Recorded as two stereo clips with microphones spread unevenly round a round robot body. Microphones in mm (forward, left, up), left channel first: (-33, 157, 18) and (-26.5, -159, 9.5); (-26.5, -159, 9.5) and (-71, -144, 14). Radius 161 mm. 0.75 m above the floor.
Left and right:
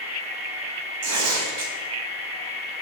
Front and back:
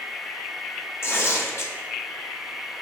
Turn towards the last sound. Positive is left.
turn(degrees=-45)